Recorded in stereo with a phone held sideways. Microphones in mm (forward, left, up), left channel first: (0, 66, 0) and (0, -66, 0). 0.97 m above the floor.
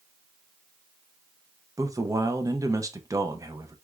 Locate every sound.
1.8 s a man speaking: 25° right (ahead or behind), 0.6 m